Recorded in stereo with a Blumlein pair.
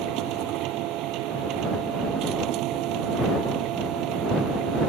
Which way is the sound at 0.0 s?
40° right.